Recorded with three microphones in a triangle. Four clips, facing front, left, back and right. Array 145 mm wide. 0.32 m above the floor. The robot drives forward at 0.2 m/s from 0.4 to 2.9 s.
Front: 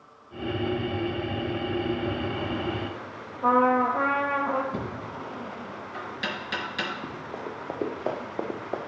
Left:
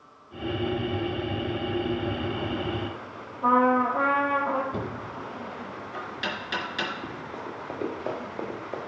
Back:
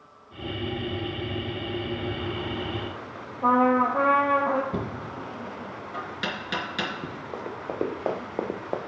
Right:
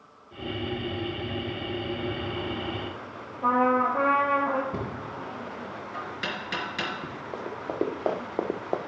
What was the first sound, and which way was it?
A trumpet, 170° right.